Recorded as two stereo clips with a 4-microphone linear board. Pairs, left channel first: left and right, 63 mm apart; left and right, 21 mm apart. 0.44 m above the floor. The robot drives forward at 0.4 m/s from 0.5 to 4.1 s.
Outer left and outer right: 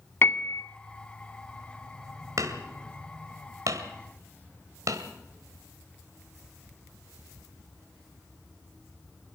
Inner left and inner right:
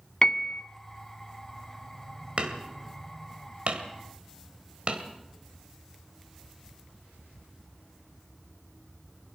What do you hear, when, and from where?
0.2 s a piano: 40° left (ahead or behind), 0.7 m; by 0.6 s 35° left (ahead or behind), 0.7 m
2.4 s hammering: 60° right (ahead or behind), 2.0 m